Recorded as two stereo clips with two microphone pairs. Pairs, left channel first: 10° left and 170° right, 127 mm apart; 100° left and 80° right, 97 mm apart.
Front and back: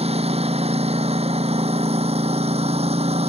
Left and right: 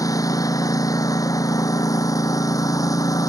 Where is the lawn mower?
155° left.